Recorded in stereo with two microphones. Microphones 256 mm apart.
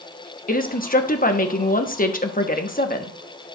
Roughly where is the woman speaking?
Left.